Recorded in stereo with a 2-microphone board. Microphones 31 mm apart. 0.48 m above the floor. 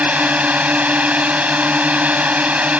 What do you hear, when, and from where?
0.0 s a drone: 50° right (ahead or behind)